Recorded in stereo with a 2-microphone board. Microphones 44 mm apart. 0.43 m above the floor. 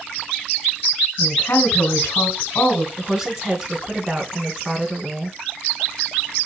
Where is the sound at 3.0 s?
15° right (ahead or behind), 3.5 m.